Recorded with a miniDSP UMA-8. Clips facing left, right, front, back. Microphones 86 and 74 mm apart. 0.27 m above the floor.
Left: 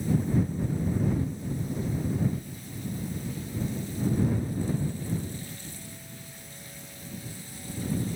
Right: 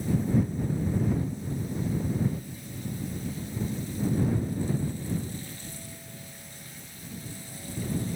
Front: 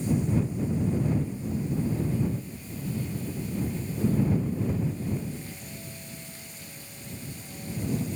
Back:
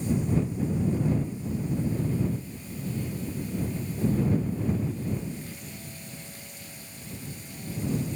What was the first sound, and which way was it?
Only background noise.